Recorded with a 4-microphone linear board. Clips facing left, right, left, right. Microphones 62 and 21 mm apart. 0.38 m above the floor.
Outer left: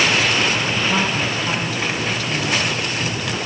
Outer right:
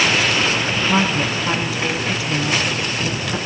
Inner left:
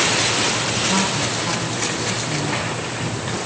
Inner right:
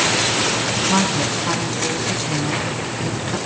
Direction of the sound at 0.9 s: 15° right (ahead or behind).